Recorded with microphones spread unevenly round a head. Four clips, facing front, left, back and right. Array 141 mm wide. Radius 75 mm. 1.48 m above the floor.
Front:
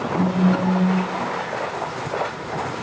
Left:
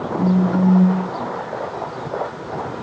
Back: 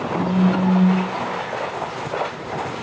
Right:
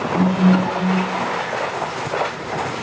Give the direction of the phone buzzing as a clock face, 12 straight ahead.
3 o'clock.